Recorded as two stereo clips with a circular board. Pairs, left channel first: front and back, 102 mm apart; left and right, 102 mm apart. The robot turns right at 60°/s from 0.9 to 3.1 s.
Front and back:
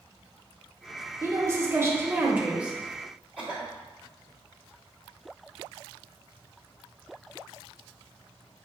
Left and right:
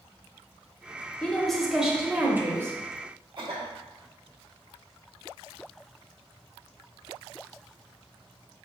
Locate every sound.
1.2 s a woman speaking: 160° left, 0.9 m; by 2.8 s 110° right, 0.9 m
3.4 s a cough: 75° right, 1.2 m